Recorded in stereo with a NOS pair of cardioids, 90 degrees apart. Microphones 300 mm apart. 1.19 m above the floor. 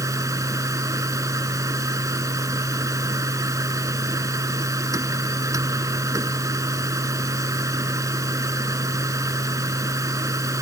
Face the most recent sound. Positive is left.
turn(degrees=-10)